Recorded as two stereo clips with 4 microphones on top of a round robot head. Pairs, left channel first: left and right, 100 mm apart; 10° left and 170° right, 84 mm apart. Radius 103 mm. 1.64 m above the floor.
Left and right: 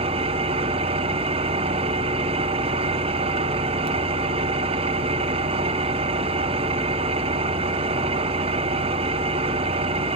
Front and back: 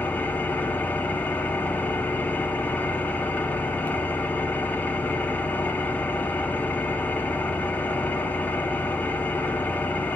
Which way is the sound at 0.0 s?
70° right.